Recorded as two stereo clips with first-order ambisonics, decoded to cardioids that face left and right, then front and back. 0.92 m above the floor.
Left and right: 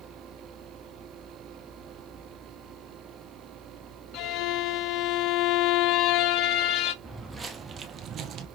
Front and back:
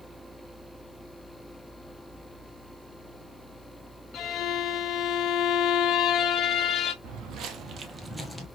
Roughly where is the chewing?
No chewing in this recording.